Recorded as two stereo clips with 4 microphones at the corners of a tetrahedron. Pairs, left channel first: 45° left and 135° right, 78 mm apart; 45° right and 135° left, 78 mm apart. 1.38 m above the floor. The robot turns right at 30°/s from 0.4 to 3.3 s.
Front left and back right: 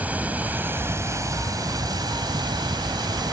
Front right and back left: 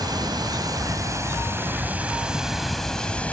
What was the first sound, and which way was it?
Running water, 155° left.